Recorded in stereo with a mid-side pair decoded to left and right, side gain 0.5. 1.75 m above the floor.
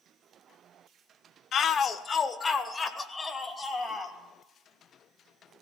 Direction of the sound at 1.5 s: 55° left.